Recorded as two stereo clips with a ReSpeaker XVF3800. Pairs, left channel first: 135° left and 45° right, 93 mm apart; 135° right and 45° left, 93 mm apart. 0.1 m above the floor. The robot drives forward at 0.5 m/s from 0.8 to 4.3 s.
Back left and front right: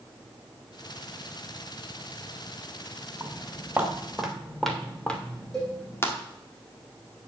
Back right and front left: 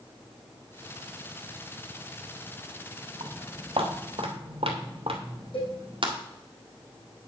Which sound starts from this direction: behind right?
A cowbell, at 5.5 s.